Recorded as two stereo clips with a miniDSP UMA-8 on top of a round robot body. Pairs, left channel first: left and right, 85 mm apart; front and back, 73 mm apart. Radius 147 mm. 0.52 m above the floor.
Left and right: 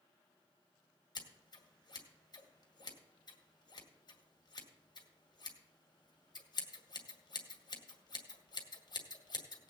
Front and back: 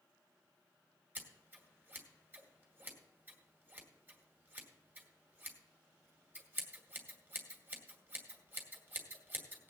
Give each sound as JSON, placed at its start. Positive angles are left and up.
{"t": 1.1, "sound": "scissors", "azimuth_deg": 115, "distance_m": 2.0}